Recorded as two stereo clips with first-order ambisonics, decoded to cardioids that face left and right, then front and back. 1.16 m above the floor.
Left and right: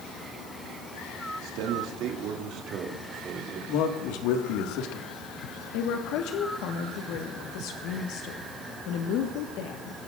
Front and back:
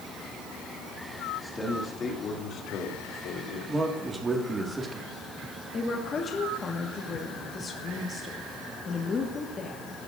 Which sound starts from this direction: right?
A man speaking, at 1.3 s.